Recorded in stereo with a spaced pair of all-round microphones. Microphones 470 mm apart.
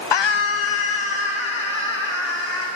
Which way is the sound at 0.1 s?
60° left (ahead or behind).